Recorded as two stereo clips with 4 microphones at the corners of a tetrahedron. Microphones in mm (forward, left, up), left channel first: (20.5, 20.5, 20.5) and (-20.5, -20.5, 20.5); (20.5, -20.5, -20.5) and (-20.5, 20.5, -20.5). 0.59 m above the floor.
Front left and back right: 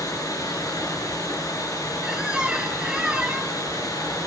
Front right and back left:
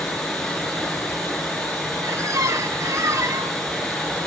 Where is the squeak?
155° left, 0.8 m.